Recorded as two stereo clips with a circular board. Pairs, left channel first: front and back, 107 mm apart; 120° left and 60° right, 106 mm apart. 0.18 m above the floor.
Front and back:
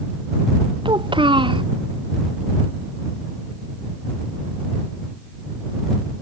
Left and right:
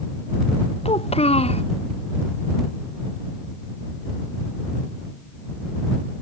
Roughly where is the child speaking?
Behind left.